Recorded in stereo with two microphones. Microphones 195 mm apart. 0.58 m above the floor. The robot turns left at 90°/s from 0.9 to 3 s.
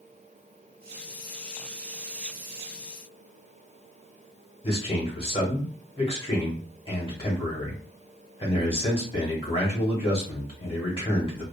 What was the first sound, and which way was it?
A man speaking, 25° left (ahead or behind).